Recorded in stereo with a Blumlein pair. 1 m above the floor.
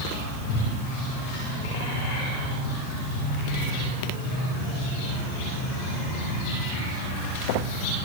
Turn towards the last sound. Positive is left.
No sound to turn to.